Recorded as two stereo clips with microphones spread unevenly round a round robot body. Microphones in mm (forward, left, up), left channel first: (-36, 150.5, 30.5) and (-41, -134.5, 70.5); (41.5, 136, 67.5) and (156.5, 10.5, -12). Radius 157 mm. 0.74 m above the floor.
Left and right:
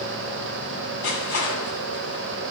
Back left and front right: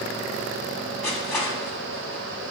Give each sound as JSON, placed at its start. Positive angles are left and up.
{"t": 1.0, "sound": "crushing", "azimuth_deg": 50, "distance_m": 7.0}